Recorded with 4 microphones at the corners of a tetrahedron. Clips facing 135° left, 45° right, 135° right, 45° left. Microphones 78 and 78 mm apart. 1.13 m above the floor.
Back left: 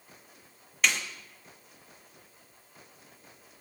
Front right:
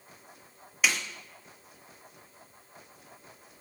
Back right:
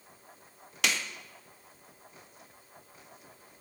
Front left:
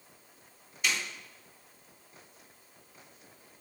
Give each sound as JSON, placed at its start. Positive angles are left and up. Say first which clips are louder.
{"t": 0.8, "sound": "a snare drum", "louder": "even, back right 1 dB", "azimuth_deg": -130, "distance_m": 1.5}